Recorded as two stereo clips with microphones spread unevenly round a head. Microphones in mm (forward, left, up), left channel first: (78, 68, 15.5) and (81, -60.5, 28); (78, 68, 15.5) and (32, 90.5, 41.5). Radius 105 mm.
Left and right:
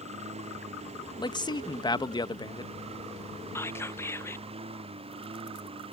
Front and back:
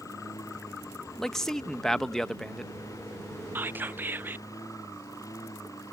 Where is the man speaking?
40° left.